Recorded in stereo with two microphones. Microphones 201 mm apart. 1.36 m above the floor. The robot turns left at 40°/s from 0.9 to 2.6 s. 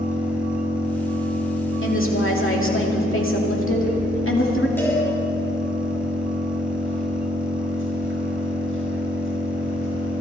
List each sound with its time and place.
0.0 s an engine running: 10° right, 5.5 m; by 10.2 s 80° right, 5.5 m
1.8 s a woman speaking: 110° left, 2.5 m; by 4.7 s 80° left, 2.5 m
4.8 s a cowbell: 10° left (ahead or behind), 5.5 m